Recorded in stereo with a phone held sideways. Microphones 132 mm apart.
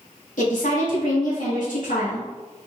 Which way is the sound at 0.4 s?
80° left.